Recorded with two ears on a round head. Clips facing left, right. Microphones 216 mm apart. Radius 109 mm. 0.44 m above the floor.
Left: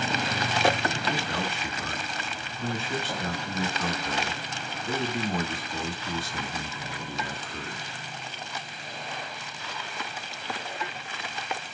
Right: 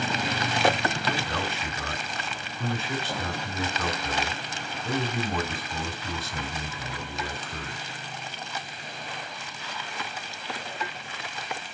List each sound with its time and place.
1.1 s a man speaking: 70° right (ahead or behind), 3.5 m